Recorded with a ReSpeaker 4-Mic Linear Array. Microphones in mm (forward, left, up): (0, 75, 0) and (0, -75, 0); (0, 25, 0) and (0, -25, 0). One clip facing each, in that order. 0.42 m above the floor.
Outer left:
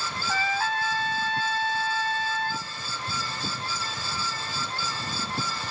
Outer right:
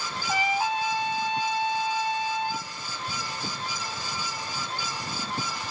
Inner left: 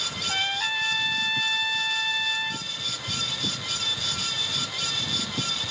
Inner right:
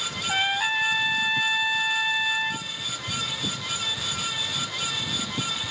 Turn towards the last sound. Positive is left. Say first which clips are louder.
# outer right 2 dB, inner right 4 dB
turn(degrees=-15)  # may be behind; listen again after turning